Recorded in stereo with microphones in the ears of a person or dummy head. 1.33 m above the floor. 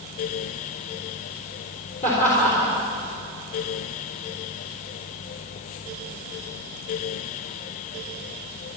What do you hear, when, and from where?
2.0 s laughter: 45° left (ahead or behind), 3.5 m